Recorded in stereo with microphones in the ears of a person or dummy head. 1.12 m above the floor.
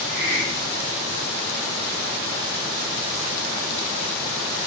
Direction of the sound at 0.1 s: 70° right (ahead or behind).